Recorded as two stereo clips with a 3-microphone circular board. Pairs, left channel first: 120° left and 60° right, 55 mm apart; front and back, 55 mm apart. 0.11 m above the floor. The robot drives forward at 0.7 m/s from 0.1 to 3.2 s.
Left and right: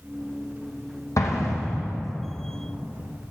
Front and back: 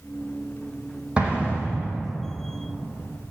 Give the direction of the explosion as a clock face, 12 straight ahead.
8 o'clock.